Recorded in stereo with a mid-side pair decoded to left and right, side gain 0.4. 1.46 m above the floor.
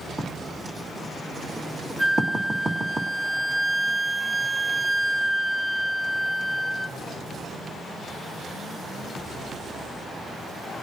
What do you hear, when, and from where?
0.2 s writing: 30° right, 2.5 m
2.0 s a flute: 5° right, 0.6 m